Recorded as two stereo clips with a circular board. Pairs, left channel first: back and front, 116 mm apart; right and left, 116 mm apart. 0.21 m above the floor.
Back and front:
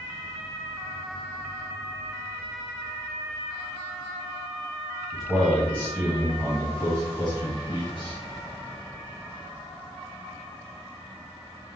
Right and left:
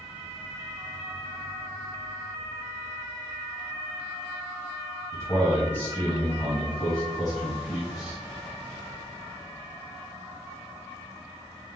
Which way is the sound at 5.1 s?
90° right.